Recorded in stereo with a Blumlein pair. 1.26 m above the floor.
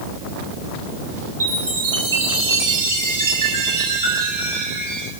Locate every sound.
1.4 s a chime: 70° right, 8 m